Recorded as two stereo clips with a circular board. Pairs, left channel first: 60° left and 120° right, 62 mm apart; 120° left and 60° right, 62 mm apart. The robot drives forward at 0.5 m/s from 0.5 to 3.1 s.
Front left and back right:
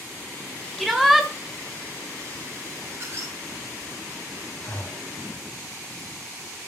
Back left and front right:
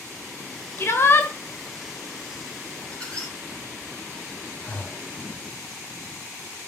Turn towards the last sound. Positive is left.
turn(degrees=80)